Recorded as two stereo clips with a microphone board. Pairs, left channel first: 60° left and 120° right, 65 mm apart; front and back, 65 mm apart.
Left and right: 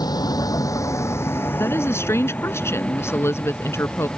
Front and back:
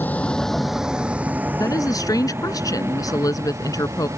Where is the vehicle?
60° left; by 4.2 s 140° left.